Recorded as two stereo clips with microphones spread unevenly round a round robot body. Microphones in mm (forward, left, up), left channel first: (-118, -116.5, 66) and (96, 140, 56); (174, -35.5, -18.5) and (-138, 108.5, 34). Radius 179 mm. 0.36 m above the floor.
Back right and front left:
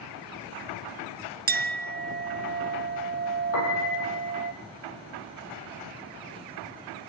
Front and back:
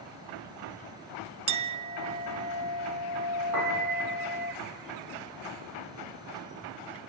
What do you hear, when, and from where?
1.5 s a clink: 80° left, 0.5 m
3.5 s a piano: 160° right, 8 m